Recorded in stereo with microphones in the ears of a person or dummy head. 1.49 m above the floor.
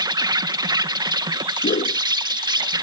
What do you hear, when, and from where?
0.0 s an insect: 25° right (ahead or behind)
1.6 s a whoosh: 30° left (ahead or behind)